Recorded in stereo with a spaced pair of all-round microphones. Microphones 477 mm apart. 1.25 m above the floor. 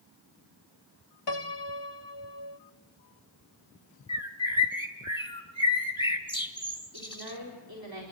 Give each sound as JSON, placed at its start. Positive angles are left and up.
{"t": 1.3, "sound": "a piano", "side_deg": 60, "distance_m": 0.9}
{"t": 4.1, "sound": "a bird", "side_deg": 10, "distance_m": 2.0}
{"t": 6.9, "sound": "a woman speaking", "side_deg": -50, "distance_m": 4.0}